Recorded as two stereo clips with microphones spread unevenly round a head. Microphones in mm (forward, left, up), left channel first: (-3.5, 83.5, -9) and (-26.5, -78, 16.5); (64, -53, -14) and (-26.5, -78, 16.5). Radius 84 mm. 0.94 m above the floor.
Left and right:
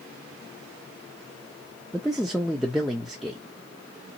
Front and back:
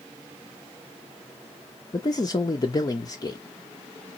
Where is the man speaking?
5° right, 0.6 m.